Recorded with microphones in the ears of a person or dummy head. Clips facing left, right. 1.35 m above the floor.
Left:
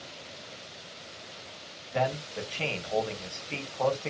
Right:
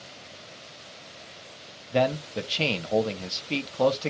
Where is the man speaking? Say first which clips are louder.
Right 5 dB; 55° right (ahead or behind), 0.9 m.